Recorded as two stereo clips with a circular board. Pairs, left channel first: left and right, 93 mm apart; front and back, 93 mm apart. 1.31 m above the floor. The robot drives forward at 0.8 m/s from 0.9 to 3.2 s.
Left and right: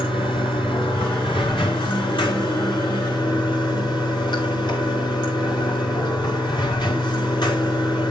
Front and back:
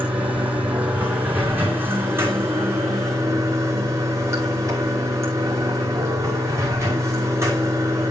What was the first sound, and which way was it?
Running water, 105° left.